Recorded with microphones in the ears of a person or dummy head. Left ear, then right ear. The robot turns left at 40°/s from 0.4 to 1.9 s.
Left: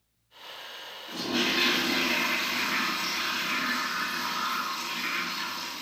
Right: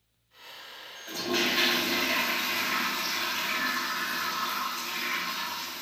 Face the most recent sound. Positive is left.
turn(degrees=-150)